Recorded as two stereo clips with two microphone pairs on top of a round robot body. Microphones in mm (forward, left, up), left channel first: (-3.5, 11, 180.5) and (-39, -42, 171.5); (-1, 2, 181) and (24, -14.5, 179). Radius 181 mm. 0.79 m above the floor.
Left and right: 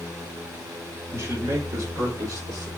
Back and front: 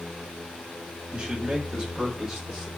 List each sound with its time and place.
1.1 s a man speaking: 95° right, 1.7 m; by 2.7 s 140° right, 3 m